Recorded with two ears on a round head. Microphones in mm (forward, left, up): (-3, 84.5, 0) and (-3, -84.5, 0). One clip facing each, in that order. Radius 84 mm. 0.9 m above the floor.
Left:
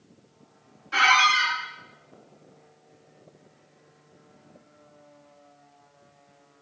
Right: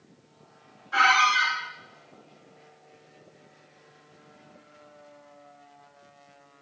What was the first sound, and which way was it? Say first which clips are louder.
A squeak: even; 30° left (ahead or behind).